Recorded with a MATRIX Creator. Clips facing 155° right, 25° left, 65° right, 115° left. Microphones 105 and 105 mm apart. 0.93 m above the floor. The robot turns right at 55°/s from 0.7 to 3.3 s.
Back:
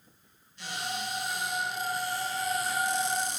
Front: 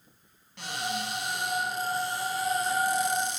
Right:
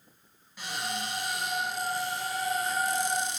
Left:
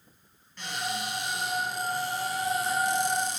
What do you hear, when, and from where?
0.6 s a cupboard door: 15° left, 8.5 m; by 3.4 s 155° left, 8.5 m